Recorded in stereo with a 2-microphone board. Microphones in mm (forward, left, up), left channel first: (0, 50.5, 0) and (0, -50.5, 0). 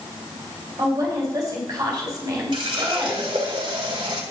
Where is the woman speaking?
35° right (ahead or behind), 4.5 m.